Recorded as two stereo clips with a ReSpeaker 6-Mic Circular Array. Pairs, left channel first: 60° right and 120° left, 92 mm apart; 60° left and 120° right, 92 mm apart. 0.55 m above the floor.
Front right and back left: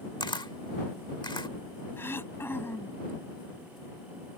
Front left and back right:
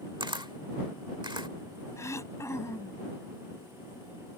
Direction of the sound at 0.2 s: 90° right.